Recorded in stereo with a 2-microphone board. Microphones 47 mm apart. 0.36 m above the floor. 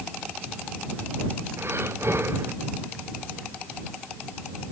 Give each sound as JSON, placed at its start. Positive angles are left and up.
{"t": 1.6, "sound": "breathing", "side_deg": -65}